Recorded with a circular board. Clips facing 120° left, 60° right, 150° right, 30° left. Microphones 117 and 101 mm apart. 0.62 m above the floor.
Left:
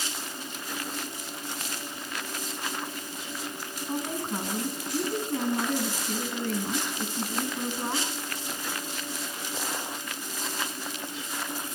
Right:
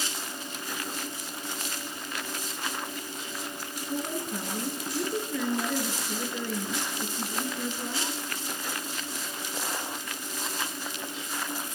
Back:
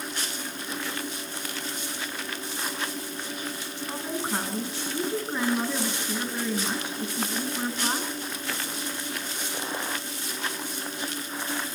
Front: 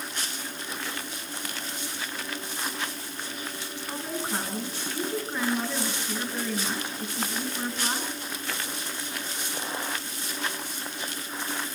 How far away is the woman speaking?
About 7.5 m.